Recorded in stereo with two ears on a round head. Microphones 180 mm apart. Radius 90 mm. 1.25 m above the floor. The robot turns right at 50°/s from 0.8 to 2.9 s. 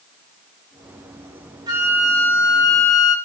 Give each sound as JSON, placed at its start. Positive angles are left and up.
{"t": 1.7, "sound": "a flute", "azimuth_deg": -20, "distance_m": 5.0}